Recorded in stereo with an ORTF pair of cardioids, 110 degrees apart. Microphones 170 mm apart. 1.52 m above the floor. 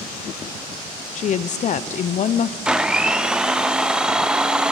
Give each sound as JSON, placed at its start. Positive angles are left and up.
{"t": 1.1, "sound": "a woman speaking", "azimuth_deg": 50, "distance_m": 0.8}
{"t": 2.6, "sound": "a blender", "azimuth_deg": -5, "distance_m": 0.6}